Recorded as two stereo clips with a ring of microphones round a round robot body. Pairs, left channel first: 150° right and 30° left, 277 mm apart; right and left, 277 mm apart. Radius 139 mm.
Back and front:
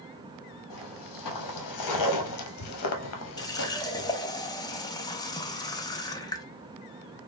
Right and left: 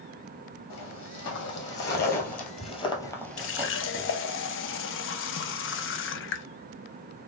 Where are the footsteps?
135° right, 1.9 m; by 4.1 s 145° left, 0.8 m.